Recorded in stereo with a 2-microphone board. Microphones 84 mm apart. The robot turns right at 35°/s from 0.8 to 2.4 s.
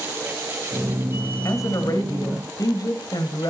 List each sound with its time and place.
1.4 s a woman speaking: 60° left, 1.8 m; by 3.5 s 90° left, 1.8 m